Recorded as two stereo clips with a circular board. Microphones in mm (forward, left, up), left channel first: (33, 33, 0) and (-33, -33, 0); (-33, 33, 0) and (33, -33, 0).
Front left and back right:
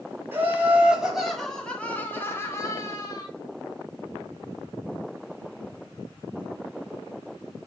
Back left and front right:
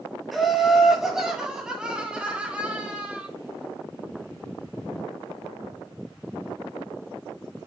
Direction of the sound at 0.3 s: 135° right.